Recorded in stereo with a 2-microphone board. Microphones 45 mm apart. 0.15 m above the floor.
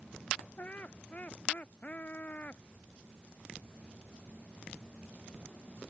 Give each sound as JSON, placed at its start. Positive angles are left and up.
{"t": 0.6, "sound": "laughter", "side_deg": 40}